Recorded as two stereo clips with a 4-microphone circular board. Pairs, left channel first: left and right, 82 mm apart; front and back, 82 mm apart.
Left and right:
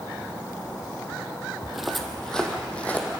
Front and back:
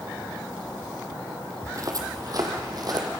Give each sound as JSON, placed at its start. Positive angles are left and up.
{"t": 1.6, "sound": "footsteps", "azimuth_deg": -170, "distance_m": 2.0}